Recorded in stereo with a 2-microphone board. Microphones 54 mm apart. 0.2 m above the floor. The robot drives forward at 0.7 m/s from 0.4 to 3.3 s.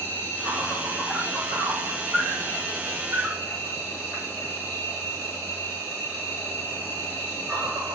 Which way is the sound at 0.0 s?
25° right (ahead or behind).